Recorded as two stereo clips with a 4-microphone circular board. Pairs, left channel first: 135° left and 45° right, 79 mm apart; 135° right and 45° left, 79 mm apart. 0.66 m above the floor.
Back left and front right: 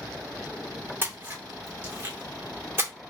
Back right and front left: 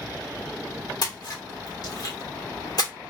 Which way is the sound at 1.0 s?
110° right.